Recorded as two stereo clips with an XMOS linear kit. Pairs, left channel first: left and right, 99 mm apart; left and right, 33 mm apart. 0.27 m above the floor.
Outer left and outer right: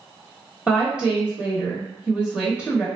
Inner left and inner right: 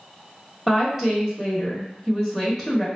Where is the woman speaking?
10° right (ahead or behind), 1.0 m.